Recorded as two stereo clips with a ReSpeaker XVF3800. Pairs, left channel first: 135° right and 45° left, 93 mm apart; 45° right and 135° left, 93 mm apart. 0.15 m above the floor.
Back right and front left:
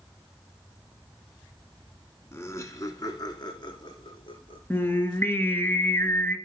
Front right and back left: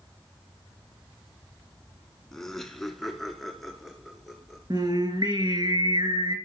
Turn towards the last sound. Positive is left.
turn(degrees=160)